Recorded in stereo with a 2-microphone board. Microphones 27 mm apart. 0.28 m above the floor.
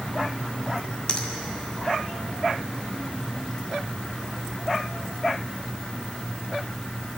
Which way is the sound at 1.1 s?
35° left (ahead or behind).